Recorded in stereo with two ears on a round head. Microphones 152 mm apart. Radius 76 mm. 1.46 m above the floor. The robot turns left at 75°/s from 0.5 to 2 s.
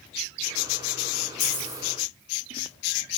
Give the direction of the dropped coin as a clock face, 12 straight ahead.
10 o'clock.